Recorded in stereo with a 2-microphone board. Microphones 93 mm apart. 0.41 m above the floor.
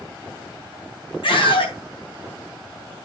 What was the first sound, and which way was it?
A scream, 70° left (ahead or behind).